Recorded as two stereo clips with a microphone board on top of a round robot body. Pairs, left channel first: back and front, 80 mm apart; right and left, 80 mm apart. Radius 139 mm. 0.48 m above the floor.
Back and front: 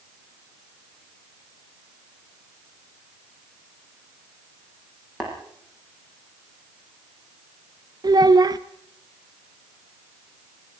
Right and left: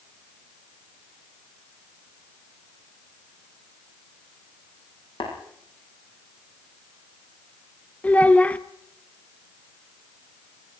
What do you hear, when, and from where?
5.2 s tapping: 85° right, 8 m
8.0 s a child speaking: 20° right, 1.0 m